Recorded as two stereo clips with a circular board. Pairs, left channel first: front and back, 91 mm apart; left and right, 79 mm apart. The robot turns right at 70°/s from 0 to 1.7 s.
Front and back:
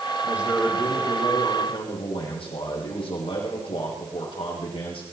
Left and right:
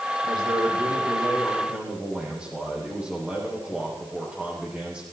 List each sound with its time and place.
0.2 s a man speaking: 115° right, 7 m; by 5.0 s 10° right, 7 m